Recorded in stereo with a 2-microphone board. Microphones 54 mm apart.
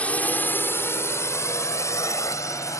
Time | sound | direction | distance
0.0 | a drone | 25° left (ahead or behind) | ?